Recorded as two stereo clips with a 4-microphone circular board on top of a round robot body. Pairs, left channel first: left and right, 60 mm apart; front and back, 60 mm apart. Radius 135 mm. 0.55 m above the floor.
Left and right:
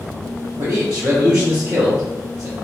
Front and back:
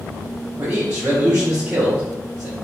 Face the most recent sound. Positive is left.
turn(degrees=-125)